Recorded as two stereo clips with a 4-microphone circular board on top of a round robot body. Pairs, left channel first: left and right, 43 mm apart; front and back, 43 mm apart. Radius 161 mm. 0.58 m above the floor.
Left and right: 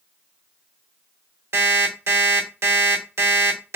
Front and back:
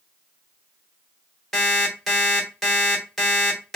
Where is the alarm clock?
85° right, 1.4 m.